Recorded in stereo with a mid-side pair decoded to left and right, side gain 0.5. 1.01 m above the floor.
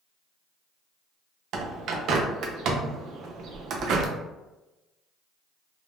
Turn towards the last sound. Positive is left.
turn(degrees=-65)